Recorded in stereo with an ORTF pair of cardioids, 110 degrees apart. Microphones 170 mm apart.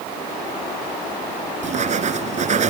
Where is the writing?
45° right.